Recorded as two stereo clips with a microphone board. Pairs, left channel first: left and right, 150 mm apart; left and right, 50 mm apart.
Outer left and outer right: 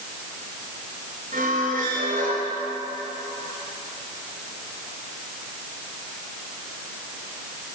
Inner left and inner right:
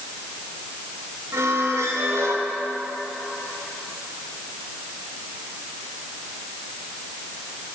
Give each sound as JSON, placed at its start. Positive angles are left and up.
{"t": 1.3, "sound": "a squeak", "side_deg": -75, "distance_m": 3.0}